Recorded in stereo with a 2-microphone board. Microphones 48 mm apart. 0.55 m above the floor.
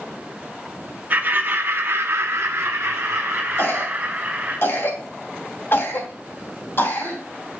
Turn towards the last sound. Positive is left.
turn(degrees=55)  # may be behind; listen again after turning